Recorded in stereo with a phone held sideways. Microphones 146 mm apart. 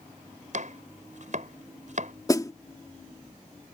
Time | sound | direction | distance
0.5 | chopping | 60° right (ahead or behind) | ?
2.3 | a snare drum | 25° left (ahead or behind) | ?